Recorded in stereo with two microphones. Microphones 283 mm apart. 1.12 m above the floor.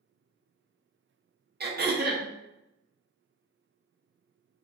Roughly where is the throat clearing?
Right.